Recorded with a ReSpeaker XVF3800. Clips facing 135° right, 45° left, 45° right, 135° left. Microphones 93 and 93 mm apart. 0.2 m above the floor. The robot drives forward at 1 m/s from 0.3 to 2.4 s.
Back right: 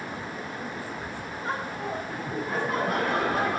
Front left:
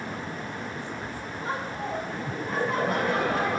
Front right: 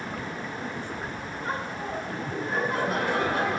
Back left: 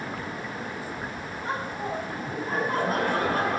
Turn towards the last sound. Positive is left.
turn(degrees=140)